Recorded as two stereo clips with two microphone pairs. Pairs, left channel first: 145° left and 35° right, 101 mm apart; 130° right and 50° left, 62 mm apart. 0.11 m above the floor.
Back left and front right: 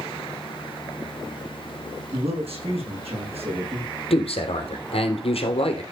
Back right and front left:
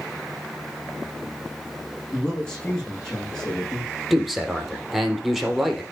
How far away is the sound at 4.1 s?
About 3 m.